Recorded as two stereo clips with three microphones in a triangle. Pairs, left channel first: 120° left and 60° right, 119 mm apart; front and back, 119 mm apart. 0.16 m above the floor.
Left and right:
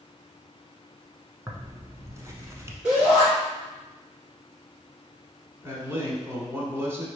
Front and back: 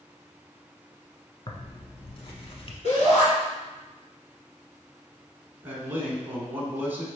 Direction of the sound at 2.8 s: 10° left.